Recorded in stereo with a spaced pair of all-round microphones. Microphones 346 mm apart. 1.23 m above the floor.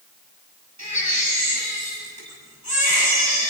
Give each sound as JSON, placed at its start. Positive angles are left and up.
{"t": 0.8, "sound": "a baby crying", "side_deg": -50, "distance_m": 6.5}